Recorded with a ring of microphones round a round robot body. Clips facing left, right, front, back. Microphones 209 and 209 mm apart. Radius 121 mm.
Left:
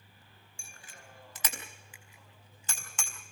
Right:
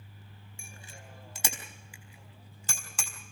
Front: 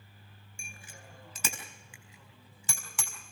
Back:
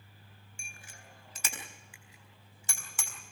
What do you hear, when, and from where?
0.6 s a bicycle bell: 25° right, 4 m; by 3.1 s 35° right, 5 m